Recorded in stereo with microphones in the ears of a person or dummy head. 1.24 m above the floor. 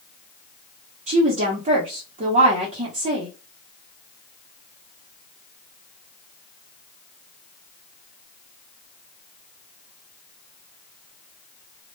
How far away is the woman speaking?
About 0.6 m.